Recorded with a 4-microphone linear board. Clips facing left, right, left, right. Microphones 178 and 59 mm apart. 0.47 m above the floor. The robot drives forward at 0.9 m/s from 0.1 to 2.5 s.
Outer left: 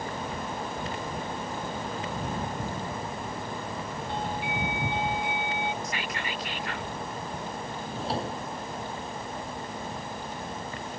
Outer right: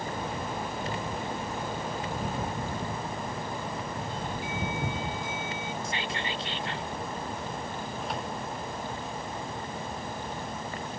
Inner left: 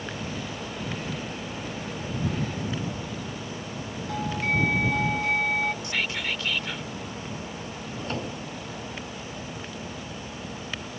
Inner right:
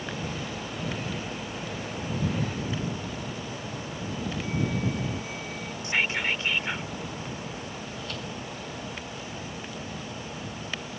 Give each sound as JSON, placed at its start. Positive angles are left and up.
{"t": 4.1, "sound": "a doorbell", "side_deg": 70}
{"t": 5.8, "sound": "whispering", "side_deg": -30}
{"t": 7.8, "sound": "a drawer", "side_deg": 30}